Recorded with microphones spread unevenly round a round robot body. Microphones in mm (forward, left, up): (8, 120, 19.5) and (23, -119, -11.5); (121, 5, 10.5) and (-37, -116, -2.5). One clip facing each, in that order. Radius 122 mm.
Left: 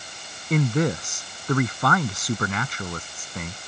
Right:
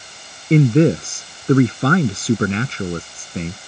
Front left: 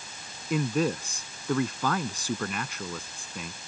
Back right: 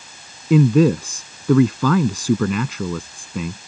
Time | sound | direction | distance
0.5 | a man speaking | 150° right | ?